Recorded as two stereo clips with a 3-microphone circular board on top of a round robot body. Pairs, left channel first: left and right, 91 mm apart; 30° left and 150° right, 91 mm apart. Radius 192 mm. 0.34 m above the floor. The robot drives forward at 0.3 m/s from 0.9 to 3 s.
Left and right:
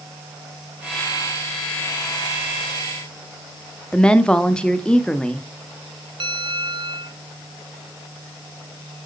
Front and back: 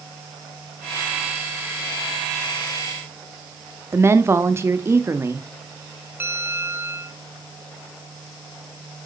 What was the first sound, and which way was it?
A woman speaking, 165° left.